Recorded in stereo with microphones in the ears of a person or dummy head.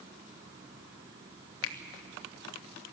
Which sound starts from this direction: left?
A finger snap, at 1.6 s.